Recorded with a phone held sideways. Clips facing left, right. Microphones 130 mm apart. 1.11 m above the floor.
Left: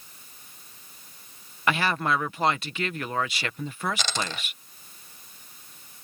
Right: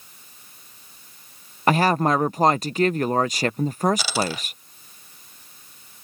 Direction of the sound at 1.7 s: 40° right (ahead or behind).